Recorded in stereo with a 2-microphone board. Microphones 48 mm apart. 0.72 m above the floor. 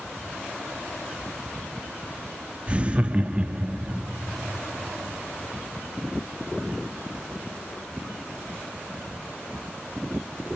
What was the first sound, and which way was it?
Laughter, 25° right (ahead or behind).